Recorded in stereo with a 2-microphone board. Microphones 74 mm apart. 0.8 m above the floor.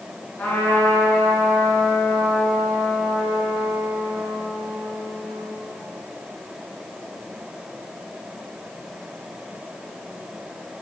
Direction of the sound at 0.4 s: 25° left (ahead or behind).